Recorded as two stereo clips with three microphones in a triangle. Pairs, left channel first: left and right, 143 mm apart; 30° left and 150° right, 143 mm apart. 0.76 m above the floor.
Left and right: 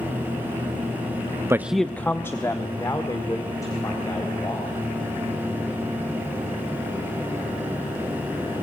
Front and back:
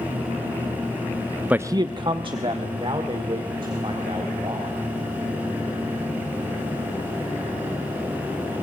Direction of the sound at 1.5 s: 90° right.